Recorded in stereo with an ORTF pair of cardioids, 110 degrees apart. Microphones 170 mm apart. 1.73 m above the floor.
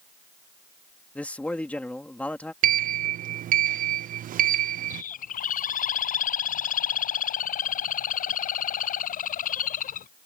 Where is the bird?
55° left.